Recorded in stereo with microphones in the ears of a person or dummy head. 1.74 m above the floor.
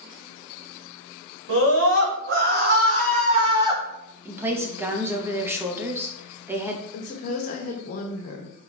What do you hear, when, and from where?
1.5 s a scream: 70° right (ahead or behind), 1.4 m; by 3.8 s 10° right (ahead or behind), 1.0 m
4.2 s a woman speaking: 15° right (ahead or behind), 0.8 m
6.9 s a woman speaking: 45° left (ahead or behind), 1.0 m